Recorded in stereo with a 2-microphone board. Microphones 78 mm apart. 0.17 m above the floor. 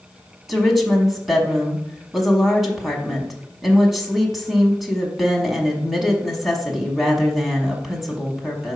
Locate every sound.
0.5 s a woman speaking: 5° right (ahead or behind), 1.1 m